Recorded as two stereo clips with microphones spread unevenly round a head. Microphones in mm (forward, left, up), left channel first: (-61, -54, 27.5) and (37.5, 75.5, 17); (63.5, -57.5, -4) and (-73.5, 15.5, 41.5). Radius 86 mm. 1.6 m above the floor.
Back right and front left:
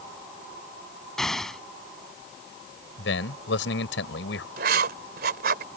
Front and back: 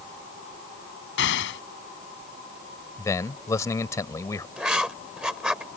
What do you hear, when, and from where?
1.2 s an explosion: 40° right
3.0 s a man speaking: 100° right
4.6 s writing: 80° left